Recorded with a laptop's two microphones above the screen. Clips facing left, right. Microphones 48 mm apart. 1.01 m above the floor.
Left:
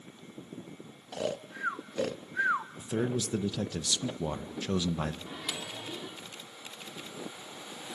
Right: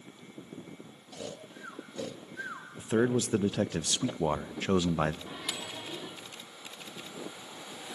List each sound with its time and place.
1.1 s snoring: 70° left (ahead or behind), 0.7 m
2.8 s a man speaking: 35° right (ahead or behind), 0.7 m
5.3 s a microwave: 5° right (ahead or behind), 2.5 m